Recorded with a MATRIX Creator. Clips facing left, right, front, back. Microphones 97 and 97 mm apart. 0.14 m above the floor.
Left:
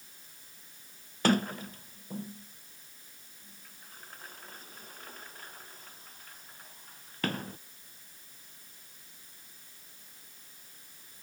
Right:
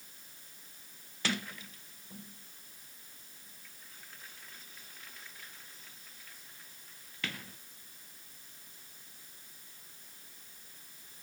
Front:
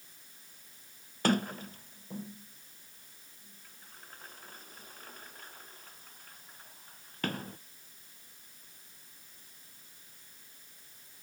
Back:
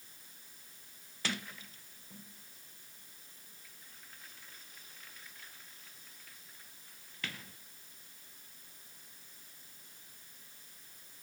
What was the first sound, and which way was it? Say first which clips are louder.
A sliding door: left 10 dB, front 12 dB; 45° left.